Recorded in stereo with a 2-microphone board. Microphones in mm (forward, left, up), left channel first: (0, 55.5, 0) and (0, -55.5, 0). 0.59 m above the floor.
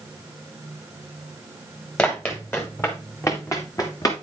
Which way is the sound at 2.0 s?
15° left (ahead or behind).